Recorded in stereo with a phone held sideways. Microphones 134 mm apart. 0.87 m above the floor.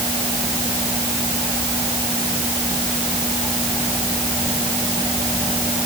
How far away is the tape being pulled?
I don't hear tape being pulled.